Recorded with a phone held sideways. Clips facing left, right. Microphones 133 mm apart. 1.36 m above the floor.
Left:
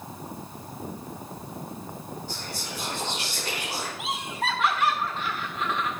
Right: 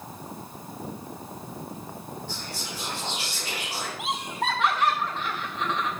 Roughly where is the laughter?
Right.